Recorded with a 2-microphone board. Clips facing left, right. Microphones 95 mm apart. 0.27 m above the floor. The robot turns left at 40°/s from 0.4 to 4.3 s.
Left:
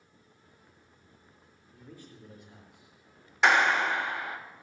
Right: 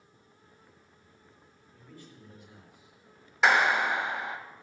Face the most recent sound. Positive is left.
turn(degrees=-35)